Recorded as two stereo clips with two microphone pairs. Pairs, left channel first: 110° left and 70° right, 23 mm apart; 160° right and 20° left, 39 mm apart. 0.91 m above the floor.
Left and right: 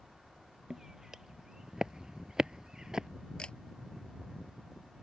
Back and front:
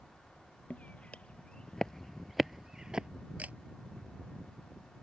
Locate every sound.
0.7 s footsteps: 130° right; by 3.1 s 25° right
3.4 s a camera shutter: 70° left